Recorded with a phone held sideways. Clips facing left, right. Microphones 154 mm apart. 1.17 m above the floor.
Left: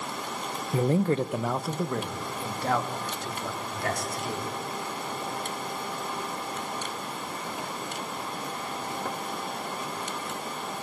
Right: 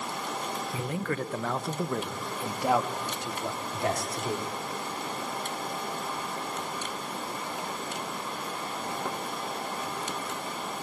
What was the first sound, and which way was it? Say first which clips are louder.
A man speaking: left 10 dB; 45° left (ahead or behind).